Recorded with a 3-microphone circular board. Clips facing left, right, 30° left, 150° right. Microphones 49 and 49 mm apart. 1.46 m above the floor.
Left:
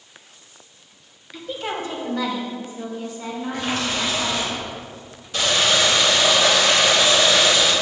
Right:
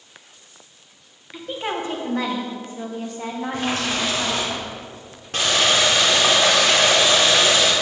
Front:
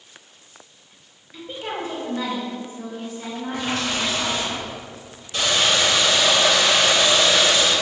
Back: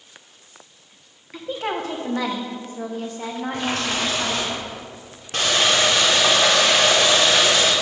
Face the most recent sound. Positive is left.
turn(degrees=-120)